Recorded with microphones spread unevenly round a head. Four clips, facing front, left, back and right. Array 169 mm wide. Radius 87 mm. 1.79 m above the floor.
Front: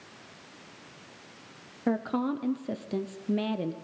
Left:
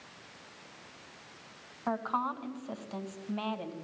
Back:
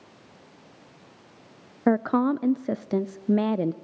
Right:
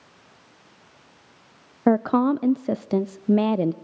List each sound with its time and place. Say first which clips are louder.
1.9 s a woman speaking: right 13 dB, back 7 dB; 105° right, 0.6 m